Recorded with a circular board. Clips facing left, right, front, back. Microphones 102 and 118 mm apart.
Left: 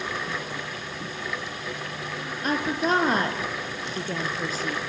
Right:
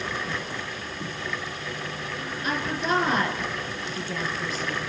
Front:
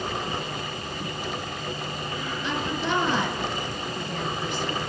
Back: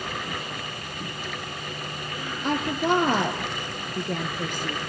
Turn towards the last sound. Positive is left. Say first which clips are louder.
# left 3 dB, back 5 dB
turn(degrees=140)